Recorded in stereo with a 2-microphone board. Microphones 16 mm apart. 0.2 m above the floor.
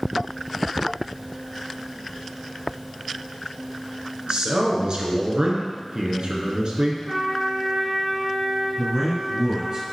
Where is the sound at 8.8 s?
55° right (ahead or behind), 4 m.